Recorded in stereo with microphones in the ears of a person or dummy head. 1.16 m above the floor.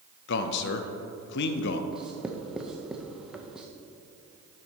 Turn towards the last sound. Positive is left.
turn(degrees=-5)  # may be behind; listen again after turning